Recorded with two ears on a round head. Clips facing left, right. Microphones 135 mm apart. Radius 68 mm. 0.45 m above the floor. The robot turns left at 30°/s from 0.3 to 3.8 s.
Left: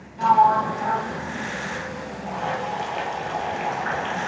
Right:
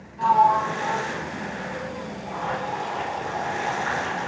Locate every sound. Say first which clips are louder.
0.2 s a sliding door: left 1 dB; 135° left, 0.7 m; by 1.5 s 100° left, 0.7 m
2.3 s boiling: left 2 dB; 110° left, 2 m; by 4.3 s 60° left, 2 m